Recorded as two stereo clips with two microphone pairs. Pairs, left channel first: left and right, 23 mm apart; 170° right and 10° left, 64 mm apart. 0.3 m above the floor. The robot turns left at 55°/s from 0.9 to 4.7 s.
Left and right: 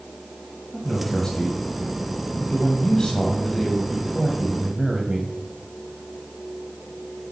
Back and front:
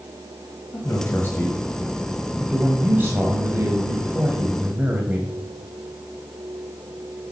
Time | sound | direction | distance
0.7 | a man speaking | 170° left | 1.6 m